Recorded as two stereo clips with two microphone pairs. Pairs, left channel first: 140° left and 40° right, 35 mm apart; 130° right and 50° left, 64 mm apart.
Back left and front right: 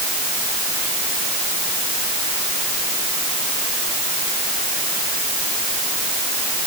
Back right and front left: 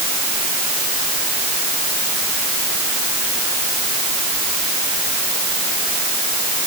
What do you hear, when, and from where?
Only background noise.